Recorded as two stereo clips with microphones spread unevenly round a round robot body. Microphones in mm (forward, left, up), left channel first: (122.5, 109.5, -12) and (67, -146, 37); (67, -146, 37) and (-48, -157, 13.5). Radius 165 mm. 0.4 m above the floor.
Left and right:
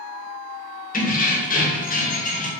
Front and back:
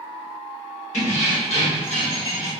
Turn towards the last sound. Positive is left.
turn(degrees=65)